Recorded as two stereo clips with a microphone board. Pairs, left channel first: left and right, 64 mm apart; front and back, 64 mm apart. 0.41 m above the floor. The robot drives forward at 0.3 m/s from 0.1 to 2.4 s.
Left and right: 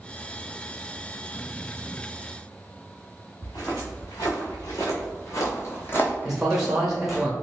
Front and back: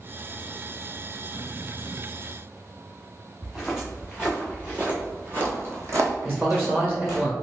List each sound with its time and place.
3.4 s footsteps: 95° left, 1.9 m; by 7.2 s 170° right, 1.1 m
6.2 s a man speaking: 165° right, 0.9 m